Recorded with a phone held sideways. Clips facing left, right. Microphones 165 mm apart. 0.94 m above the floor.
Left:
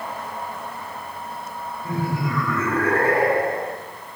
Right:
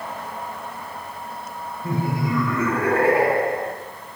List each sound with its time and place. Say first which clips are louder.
1.8 s laughter: right 2 dB; 20° right (ahead or behind), 3 m; by 3.7 s centre (ahead or behind), 1.5 m